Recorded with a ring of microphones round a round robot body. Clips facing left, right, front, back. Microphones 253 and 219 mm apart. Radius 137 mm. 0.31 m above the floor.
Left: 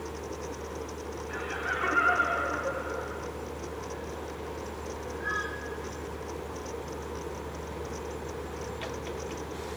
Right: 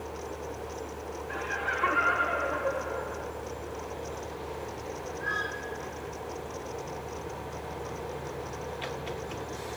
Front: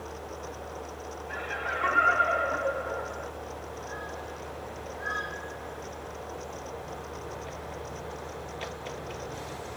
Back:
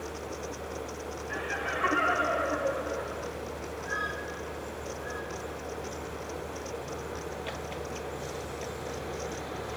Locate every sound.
1.3 s laughter: 115° left, 1.3 m